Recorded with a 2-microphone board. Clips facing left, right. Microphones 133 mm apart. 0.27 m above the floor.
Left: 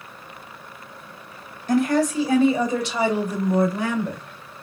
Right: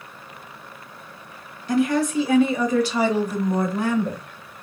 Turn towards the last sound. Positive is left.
turn(degrees=-10)  # may be behind; listen again after turning